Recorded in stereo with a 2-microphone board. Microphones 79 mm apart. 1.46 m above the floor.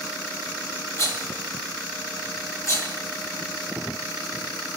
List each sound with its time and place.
1.0 s a rattle: 40° left (ahead or behind), 1.0 m